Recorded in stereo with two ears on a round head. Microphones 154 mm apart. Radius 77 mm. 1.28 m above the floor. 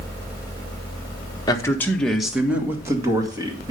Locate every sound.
1.5 s a man speaking: 25° left (ahead or behind), 1.4 m; by 3.7 s 25° right (ahead or behind), 2.5 m